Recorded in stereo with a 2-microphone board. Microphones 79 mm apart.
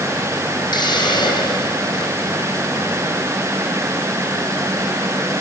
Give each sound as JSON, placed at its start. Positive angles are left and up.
{"t": 0.7, "sound": "a hiss", "side_deg": 65, "distance_m": 4.5}